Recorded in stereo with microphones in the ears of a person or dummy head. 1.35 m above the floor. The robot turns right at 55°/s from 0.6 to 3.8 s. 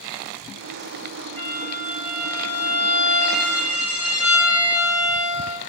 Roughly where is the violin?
Ahead right.